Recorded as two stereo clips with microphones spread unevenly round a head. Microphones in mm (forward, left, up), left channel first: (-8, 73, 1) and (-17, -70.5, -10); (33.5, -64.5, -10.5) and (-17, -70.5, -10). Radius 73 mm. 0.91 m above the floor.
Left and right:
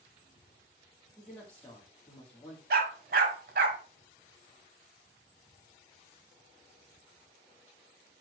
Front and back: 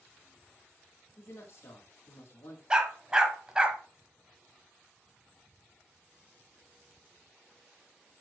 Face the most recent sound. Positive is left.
turn(degrees=-100)